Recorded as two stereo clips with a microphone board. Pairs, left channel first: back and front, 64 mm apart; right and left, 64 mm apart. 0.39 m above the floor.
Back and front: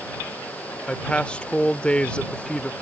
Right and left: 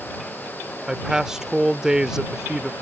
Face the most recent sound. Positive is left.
turn(degrees=155)